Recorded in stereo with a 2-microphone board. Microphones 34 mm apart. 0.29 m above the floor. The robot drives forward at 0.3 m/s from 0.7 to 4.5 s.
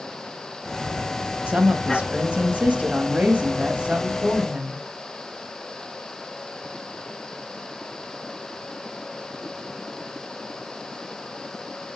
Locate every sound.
1.5 s a woman speaking: 45° right (ahead or behind), 1.3 m; by 4.8 s 40° right (ahead or behind), 1.4 m